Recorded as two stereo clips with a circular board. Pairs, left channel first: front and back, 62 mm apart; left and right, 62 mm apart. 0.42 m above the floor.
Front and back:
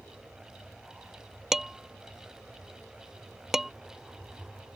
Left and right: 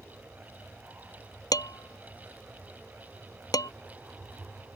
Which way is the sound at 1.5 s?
95° left.